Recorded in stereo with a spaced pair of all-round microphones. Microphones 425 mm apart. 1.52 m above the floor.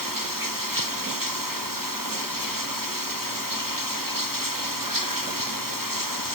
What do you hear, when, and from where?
0.0 s running water: 50° right (ahead or behind)